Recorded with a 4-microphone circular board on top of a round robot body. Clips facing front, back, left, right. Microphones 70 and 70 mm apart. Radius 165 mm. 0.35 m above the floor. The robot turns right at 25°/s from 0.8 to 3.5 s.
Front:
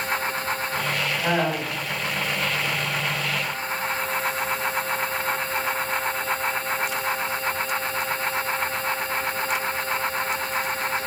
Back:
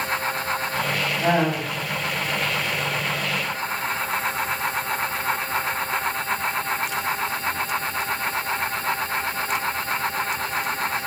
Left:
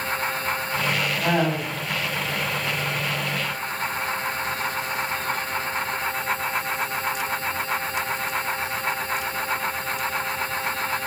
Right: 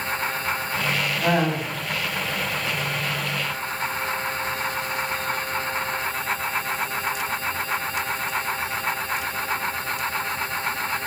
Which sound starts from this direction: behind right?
Laughter, at 1.2 s.